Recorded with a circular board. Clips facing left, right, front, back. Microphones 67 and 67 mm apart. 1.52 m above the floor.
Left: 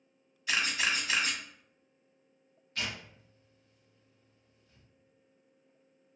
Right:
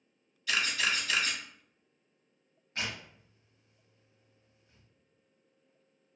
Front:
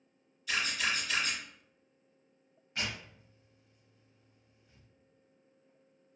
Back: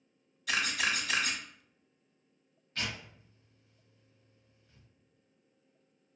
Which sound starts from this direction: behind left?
A camera shutter, at 0.5 s.